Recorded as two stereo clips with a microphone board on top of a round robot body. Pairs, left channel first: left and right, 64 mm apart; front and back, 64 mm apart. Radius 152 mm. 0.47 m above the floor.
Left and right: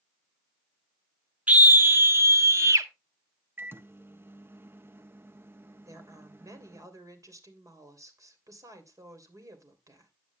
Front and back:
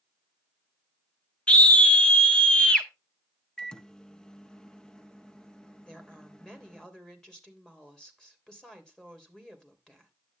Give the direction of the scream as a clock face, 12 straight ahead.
2 o'clock.